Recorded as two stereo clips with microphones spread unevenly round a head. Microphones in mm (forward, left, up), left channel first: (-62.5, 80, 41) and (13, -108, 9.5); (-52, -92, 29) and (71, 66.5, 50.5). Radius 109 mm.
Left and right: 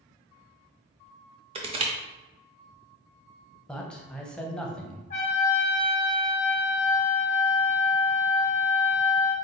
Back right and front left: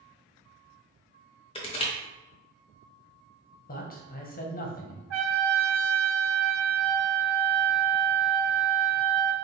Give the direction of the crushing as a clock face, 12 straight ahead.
3 o'clock.